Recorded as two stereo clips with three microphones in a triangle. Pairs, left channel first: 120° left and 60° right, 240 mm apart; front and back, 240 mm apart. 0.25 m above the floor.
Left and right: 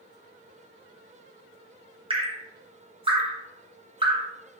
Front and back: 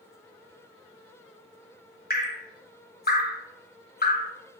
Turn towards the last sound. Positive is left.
turn(degrees=-5)